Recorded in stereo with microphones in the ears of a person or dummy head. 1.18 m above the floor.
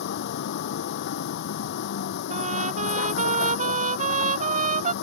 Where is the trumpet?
45° right (ahead or behind).